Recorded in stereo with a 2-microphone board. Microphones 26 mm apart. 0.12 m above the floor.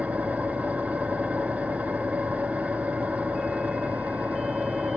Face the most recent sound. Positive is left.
turn(degrees=-80)